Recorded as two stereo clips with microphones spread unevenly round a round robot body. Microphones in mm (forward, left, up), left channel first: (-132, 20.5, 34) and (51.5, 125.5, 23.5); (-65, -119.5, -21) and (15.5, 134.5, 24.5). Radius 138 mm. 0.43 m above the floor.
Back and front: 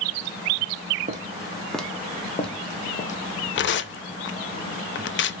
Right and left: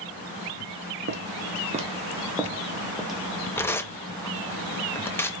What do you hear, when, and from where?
1.1 s footsteps: 75° left, 0.5 m; by 3.2 s 160° left, 1.1 m
3.5 s tearing paper: 175° left, 0.5 m